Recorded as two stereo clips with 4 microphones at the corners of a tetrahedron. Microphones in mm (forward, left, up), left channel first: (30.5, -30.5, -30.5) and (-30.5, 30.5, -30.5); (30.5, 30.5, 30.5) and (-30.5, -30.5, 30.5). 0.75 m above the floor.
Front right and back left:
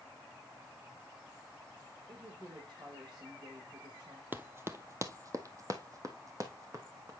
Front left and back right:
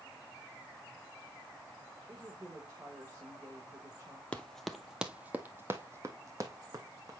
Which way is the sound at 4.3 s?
100° left.